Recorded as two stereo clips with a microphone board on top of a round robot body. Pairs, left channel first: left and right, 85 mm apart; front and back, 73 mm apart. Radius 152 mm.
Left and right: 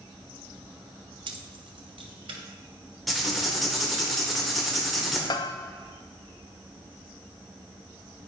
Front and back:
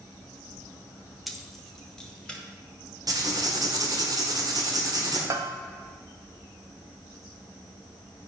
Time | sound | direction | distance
1.3 | keys jangling | 90° right | 1.2 m
3.1 | writing | straight behind | 2 m
5.3 | a bell | 130° left | 0.5 m